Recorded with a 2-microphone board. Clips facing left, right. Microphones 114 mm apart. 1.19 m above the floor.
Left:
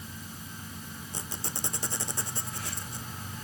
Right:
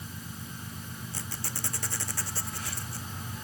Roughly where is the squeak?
Left.